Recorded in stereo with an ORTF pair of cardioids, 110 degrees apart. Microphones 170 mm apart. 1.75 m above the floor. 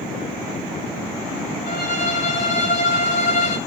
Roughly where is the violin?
Ahead left.